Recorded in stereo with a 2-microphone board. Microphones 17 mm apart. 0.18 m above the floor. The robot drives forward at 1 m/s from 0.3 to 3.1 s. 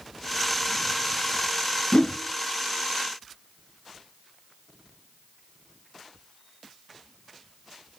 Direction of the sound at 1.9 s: 70° left (ahead or behind).